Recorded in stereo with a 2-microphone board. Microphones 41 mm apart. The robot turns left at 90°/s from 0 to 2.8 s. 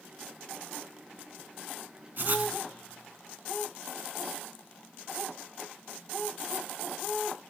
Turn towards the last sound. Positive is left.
turn(degrees=-175)